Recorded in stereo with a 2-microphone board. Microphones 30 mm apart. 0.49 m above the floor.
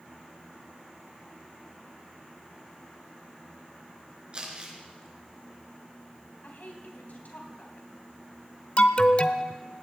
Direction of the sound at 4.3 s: 35° right (ahead or behind).